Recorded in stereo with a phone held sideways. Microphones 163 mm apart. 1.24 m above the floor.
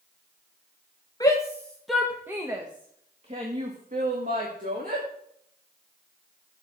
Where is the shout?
20° left (ahead or behind), 1.9 m; by 5.0 s 60° right (ahead or behind), 4 m.